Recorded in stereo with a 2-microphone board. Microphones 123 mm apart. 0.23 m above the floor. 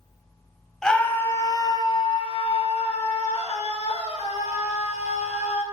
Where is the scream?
5° left (ahead or behind), 1.2 m; by 5.6 s 70° left (ahead or behind), 4.5 m.